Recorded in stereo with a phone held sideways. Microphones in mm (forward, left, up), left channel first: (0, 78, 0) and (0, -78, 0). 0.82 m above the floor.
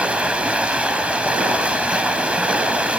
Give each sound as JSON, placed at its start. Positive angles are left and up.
{"t": 0.0, "sound": "running water", "side_deg": -10, "distance_m": 1.2}